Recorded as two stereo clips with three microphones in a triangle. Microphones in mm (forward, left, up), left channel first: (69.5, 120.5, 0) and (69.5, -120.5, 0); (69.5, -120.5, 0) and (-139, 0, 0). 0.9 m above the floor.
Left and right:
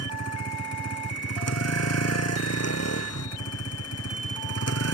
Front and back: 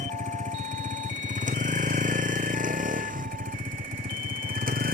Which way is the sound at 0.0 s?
90° left.